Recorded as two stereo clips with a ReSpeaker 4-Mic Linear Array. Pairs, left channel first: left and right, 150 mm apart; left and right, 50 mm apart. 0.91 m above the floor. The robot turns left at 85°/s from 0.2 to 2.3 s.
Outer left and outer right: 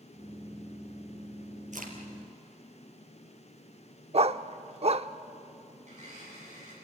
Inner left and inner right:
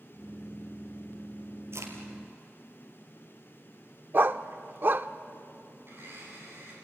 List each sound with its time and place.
1.7 s a crack: 55° right (ahead or behind), 4 m; by 1.9 s 70° right (ahead or behind), 4 m
4.1 s a dog barking: 45° right (ahead or behind), 0.6 m
5.8 s a blender: 55° right (ahead or behind), 9 m